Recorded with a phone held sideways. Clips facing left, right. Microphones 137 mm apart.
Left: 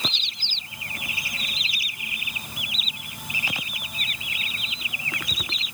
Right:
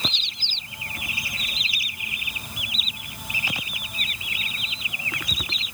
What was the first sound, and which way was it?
Only background noise.